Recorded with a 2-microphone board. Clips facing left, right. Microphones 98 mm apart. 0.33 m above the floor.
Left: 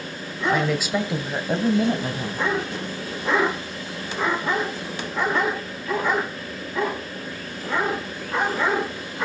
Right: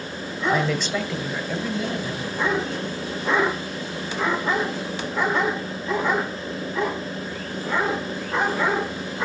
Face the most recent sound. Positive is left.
turn(degrees=50)  # may be behind; listen again after turning